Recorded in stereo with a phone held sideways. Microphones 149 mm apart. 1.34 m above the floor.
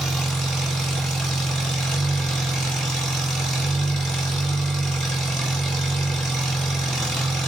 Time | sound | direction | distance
0.0 | an engine running | 5° left (ahead or behind) | 2.5 m